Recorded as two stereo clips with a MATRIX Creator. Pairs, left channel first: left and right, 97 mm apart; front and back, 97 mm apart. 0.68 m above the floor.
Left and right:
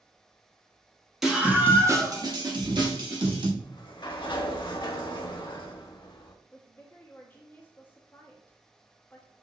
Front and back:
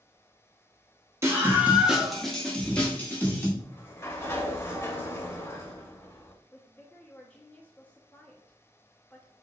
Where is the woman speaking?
55° left, 0.7 m.